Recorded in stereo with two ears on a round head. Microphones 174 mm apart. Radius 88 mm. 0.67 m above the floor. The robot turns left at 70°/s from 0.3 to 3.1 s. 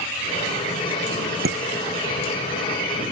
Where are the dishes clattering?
50° right (ahead or behind); by 2.3 s 75° right (ahead or behind).